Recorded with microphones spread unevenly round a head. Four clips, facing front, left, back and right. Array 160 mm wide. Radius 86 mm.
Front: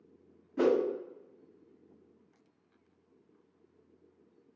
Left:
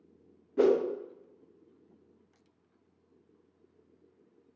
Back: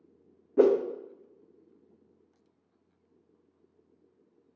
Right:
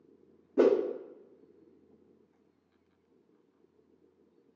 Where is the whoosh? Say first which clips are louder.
Even, back 5 dB; 160° right, 0.5 m.